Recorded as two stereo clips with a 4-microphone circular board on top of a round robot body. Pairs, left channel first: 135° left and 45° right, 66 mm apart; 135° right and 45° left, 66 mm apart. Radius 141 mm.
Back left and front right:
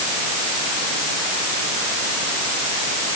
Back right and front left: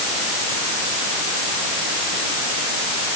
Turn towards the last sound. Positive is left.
No sound to turn to.